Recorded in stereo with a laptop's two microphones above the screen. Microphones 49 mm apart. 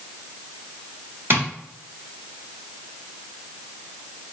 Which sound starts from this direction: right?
Tapping, at 1.3 s.